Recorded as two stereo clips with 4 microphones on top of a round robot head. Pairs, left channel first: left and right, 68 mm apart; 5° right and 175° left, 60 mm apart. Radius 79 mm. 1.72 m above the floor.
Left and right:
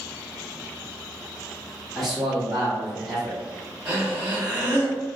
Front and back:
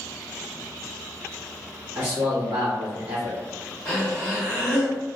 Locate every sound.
1.9 s a man speaking: straight behind, 1.3 m
3.9 s breathing: 135° right, 0.6 m